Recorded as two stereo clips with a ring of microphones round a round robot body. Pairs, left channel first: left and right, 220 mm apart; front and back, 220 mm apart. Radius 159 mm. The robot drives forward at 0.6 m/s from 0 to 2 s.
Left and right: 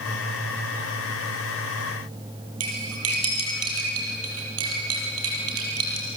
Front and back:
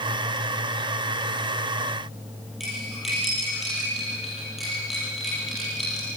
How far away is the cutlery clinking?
About 6 m.